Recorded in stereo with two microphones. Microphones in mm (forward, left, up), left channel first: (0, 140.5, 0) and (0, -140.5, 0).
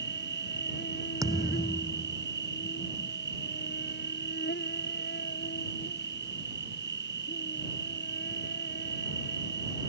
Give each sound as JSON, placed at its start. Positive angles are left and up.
{"t": 0.0, "sound": "an insect", "side_deg": 40}
{"t": 1.2, "sound": "a thud", "side_deg": -10}